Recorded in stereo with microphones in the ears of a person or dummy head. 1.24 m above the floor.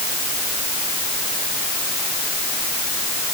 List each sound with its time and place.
Only background noise.